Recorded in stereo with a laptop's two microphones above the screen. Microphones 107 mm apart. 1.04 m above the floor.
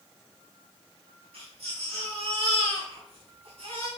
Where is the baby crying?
60° right (ahead or behind), 4 m.